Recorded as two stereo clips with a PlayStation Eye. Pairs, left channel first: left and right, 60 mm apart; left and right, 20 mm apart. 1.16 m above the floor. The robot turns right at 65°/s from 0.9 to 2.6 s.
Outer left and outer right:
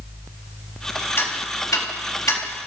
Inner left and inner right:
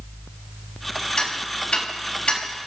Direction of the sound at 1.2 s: 40° left (ahead or behind).